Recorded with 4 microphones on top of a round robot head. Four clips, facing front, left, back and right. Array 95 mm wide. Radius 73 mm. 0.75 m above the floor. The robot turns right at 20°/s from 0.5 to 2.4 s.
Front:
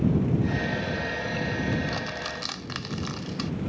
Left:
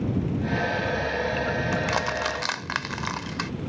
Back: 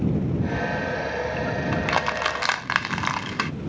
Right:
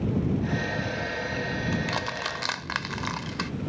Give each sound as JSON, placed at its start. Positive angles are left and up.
{"t": 1.7, "sound": "crushing", "azimuth_deg": 160}